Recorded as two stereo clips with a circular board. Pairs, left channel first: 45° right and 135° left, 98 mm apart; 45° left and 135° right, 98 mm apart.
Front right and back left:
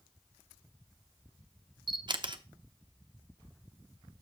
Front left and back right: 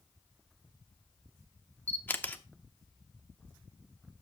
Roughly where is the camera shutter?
Behind left.